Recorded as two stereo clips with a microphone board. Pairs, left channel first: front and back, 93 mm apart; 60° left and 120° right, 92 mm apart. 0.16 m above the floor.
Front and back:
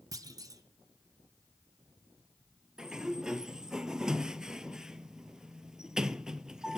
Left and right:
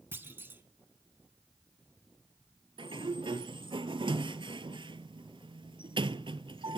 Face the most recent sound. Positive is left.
turn(degrees=-95)